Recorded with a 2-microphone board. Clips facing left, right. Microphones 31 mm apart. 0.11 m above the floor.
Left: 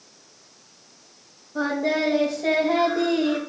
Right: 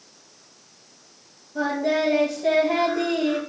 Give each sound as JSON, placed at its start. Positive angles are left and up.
{"t": 1.6, "sound": "singing", "side_deg": 35, "distance_m": 4.0}